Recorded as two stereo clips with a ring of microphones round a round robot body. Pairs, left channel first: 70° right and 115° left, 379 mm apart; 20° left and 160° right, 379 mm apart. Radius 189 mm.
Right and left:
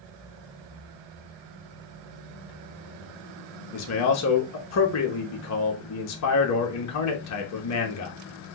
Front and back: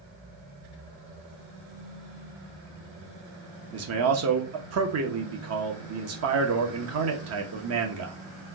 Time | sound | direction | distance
3.7 | a man speaking | 110° right | 0.8 m